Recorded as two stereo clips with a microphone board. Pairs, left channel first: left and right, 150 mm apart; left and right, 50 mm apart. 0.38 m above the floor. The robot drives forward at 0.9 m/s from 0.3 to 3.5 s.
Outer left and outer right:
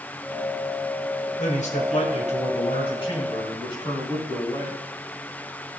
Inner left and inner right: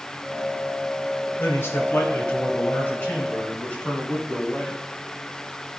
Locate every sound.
1.4 s a man speaking: 55° left (ahead or behind), 1.7 m; by 4.8 s 30° left (ahead or behind), 2.5 m